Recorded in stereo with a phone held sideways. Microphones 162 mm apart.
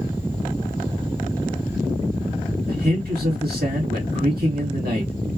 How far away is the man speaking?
About 1.7 m.